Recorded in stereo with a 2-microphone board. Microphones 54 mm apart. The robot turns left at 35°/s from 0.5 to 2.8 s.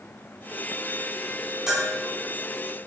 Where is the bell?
15° right (ahead or behind), 1.4 m; by 2.0 s 25° right (ahead or behind), 1.4 m.